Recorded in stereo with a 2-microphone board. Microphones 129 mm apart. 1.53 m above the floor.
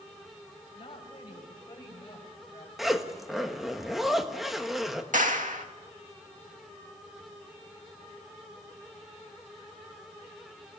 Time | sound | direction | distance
0.8 | a woman speaking | 40° left (ahead or behind) | 8 m
2.8 | a zipper | centre (ahead or behind) | 1.6 m
5.1 | a clap | 85° right | 2 m